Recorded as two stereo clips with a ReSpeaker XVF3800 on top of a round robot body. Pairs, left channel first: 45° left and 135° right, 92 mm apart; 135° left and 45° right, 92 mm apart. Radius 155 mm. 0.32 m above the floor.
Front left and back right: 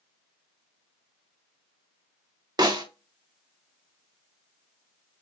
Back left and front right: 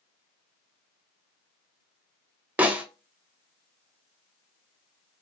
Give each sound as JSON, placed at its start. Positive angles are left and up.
{"t": 2.6, "sound": "a snare drum", "azimuth_deg": -110, "distance_m": 1.4}